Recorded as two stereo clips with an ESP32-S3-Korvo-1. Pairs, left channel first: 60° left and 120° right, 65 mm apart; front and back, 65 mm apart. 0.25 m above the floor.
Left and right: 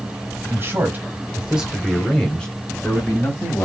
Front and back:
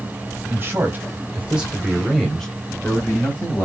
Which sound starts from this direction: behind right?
A man speaking, at 0.5 s.